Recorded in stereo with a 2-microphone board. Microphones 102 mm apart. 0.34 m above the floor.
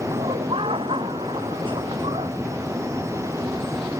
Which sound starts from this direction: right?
Laughter, at 0.1 s.